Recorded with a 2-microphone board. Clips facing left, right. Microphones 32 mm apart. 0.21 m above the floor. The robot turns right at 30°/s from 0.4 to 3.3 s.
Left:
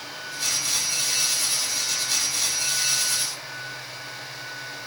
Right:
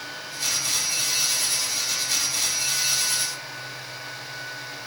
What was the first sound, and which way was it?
Only background noise.